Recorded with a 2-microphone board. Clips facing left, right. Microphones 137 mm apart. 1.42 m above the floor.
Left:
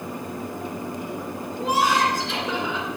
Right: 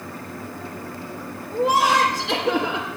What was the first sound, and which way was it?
Laughter, 85° right.